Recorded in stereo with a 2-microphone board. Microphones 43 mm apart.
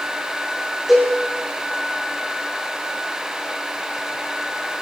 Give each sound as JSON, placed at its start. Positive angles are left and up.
{"t": 0.9, "sound": "a cowbell", "side_deg": -10, "distance_m": 3.5}